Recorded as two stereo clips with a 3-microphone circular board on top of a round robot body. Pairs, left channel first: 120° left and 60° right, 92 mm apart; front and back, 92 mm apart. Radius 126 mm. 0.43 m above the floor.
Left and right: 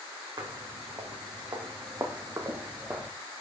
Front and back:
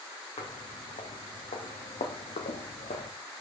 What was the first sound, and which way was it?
Footsteps, 15° right.